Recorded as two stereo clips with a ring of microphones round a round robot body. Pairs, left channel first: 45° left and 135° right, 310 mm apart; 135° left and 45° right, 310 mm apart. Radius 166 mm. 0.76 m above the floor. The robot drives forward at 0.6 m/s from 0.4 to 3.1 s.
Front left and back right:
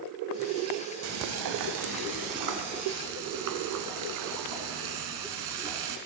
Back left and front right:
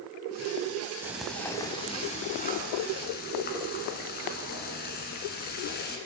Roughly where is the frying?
Behind right.